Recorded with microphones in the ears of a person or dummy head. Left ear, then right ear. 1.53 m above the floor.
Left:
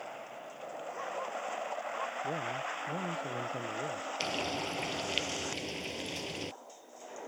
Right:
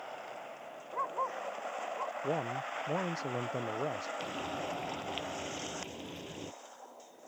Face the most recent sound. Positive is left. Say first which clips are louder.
# left 4 dB
turn(degrees=35)  # may be behind; listen again after turning